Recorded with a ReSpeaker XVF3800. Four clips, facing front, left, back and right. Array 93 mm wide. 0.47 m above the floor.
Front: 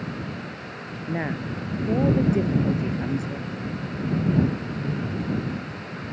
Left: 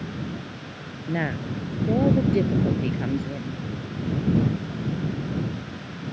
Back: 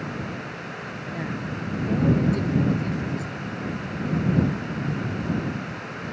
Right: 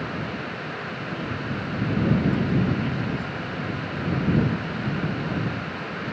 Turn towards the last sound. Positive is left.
turn(degrees=65)